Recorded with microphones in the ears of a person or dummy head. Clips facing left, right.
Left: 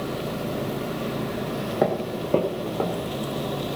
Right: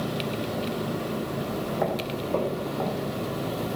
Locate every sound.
1.5 s footsteps: 40° left (ahead or behind), 2 m; by 3.1 s 55° left (ahead or behind), 3.5 m